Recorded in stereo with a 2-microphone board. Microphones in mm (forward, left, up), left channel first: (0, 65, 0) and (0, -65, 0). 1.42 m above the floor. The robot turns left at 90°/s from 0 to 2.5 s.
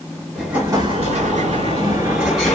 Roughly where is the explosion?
Ahead.